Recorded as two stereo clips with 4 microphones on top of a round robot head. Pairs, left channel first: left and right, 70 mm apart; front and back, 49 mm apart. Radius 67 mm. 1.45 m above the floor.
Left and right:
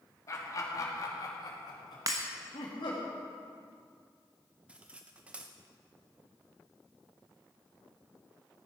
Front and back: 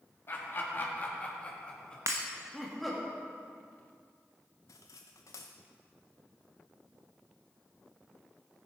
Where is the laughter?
40° left, 2.5 m; by 3.1 s 95° left, 2.5 m.